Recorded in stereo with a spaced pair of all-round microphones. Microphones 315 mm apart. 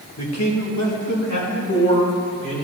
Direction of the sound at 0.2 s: 50° left (ahead or behind).